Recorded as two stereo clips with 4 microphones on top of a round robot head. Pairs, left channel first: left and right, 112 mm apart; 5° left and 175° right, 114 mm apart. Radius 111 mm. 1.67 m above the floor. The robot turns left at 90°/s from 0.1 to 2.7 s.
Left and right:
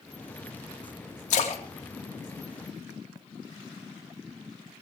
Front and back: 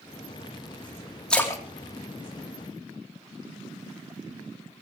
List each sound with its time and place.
1.3 s a splash: 90° left, 3 m; by 3.2 s 35° right, 3 m